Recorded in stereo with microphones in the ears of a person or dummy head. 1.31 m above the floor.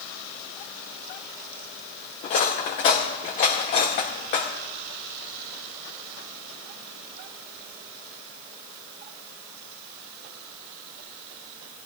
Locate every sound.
2.2 s cutlery clinking: 30° left (ahead or behind), 0.8 m